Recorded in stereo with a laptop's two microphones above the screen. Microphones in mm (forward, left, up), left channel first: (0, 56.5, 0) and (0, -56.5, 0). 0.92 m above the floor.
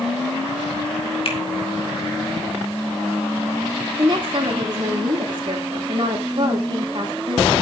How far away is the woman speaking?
About 3 m.